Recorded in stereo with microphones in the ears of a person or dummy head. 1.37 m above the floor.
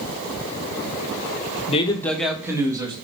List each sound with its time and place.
1.7 s a man speaking: 35° left (ahead or behind), 1.2 m; by 3.0 s 25° right (ahead or behind), 2.5 m